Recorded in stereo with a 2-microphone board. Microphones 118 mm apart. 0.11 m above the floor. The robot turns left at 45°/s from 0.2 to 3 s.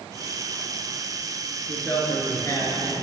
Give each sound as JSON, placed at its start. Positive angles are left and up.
{"t": 1.7, "sound": "a man speaking", "azimuth_deg": 155, "distance_m": 1.5}